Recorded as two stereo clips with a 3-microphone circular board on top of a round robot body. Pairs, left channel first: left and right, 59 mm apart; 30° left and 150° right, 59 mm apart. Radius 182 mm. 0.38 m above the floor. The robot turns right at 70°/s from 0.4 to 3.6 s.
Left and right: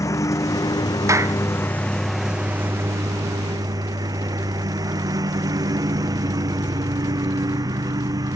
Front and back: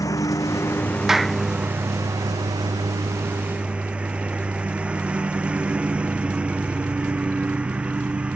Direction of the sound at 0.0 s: 55° left.